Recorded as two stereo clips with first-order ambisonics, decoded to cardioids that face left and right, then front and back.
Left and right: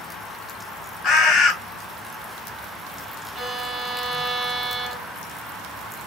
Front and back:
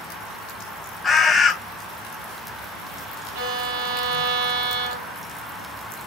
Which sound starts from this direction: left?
A bird, at 1.0 s.